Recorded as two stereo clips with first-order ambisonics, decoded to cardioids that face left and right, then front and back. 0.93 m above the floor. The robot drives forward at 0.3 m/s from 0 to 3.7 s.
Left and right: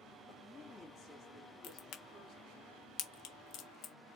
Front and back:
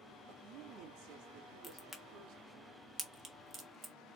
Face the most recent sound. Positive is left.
turn(degrees=120)